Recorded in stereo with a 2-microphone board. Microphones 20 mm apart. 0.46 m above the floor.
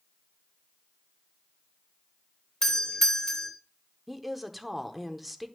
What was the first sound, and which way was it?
A doorbell, 25° left (ahead or behind).